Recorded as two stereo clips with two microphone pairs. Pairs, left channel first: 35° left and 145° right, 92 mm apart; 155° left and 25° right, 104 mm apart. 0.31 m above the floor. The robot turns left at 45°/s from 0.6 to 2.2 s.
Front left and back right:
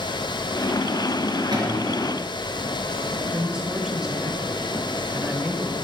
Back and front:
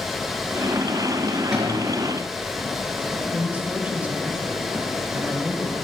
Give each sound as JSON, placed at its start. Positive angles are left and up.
{"t": 1.5, "sound": "a cupboard door", "azimuth_deg": -110, "distance_m": 4.5}
{"t": 3.3, "sound": "a man speaking", "azimuth_deg": -80, "distance_m": 1.5}